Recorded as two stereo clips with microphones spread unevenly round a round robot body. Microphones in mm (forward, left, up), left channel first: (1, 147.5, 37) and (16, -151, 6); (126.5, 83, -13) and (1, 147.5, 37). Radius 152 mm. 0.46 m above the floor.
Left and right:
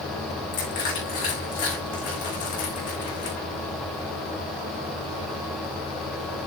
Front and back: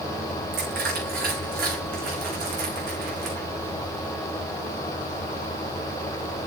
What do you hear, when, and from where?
0.5 s crushing: 160° left, 5 m